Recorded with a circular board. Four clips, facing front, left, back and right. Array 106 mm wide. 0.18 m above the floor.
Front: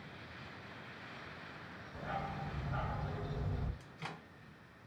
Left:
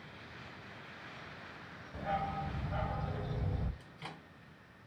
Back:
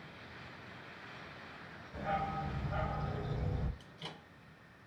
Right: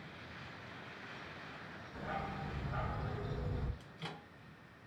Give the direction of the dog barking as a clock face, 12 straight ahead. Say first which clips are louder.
Left 6 dB, back 5 dB; 7 o'clock.